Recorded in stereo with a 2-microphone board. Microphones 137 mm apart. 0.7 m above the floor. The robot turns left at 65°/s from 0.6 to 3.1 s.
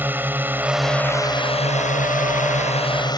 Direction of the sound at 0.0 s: 165° right.